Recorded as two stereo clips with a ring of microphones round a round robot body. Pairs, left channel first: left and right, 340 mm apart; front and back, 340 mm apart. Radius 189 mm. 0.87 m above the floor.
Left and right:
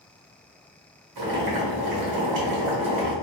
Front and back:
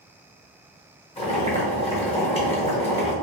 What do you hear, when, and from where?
1.2 s boiling: 75° right, 1.2 m